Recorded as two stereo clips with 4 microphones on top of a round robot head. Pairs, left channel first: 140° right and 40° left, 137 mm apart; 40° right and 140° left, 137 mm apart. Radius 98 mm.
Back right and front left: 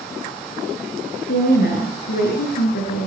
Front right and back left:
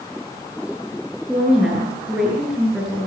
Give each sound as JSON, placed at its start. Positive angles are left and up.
{"t": 1.3, "sound": "a woman speaking", "azimuth_deg": -135, "distance_m": 6.5}